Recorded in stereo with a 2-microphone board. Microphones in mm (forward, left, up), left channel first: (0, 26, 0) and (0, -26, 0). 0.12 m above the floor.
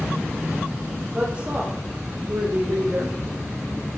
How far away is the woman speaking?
About 5 m.